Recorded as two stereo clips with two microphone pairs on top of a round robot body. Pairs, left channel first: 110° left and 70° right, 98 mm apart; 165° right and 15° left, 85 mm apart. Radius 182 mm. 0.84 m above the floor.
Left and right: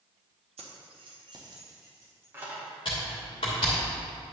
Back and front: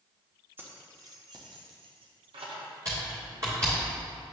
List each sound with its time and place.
0.6 s keys jangling: 50° right, 1.0 m; by 2.7 s straight ahead, 1.7 m
2.9 s typing on a keyboard: 70° left, 0.6 m